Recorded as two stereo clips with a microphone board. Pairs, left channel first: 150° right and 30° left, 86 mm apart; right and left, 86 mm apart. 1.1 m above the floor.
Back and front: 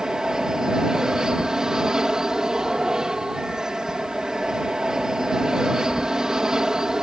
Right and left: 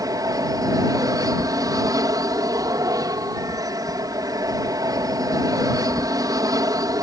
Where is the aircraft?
110° left.